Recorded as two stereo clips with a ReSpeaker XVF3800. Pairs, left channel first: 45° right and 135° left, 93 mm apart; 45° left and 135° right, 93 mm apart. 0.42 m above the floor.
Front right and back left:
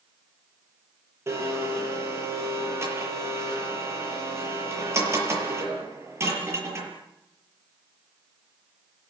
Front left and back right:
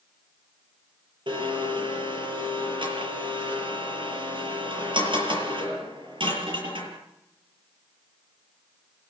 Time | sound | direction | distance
1.3 | a blender | 165° right | 7 m